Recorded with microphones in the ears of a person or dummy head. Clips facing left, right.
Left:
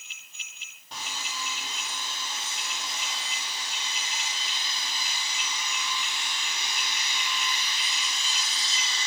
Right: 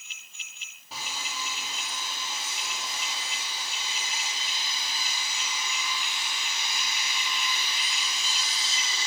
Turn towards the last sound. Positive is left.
turn(degrees=5)  # may be behind; listen again after turning